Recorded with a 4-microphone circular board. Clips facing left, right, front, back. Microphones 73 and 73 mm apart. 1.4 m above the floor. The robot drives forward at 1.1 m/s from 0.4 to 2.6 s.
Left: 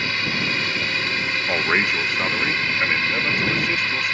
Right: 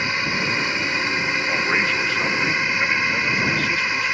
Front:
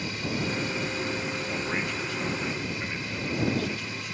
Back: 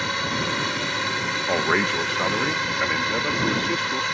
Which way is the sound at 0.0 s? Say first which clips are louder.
Right 1 dB, back 6 dB; 160° right.